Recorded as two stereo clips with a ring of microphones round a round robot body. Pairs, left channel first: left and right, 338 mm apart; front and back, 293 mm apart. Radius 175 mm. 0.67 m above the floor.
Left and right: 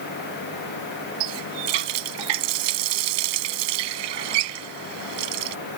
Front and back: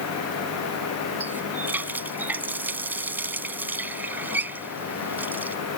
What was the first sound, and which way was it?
A running tap, 95° right.